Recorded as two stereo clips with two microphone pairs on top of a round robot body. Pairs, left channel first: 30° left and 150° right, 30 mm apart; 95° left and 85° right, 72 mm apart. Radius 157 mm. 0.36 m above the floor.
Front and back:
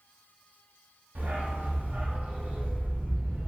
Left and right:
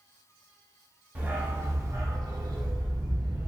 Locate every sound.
1.1 s a dog barking: 150° right, 1.1 m; by 3.5 s 100° right, 1.6 m